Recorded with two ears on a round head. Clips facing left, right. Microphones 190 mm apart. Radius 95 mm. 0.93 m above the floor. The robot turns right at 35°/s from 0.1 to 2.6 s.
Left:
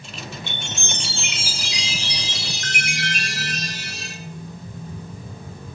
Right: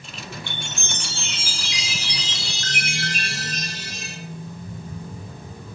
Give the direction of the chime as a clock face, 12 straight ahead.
7 o'clock.